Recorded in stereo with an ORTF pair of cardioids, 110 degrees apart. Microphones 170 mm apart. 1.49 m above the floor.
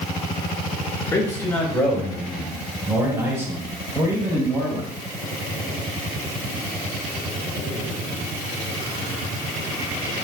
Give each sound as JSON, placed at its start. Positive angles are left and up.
{"t": 1.1, "sound": "a man speaking", "azimuth_deg": 20, "distance_m": 1.8}